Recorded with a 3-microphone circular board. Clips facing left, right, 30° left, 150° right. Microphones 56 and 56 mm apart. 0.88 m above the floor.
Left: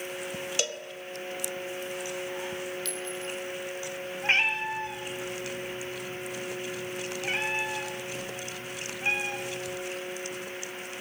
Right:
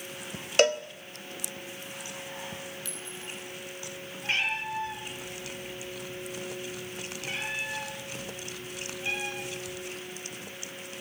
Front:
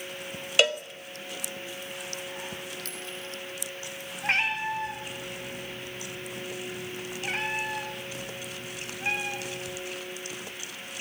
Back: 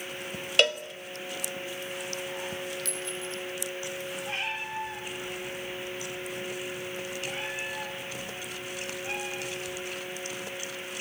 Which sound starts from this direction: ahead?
A clink, at 2.9 s.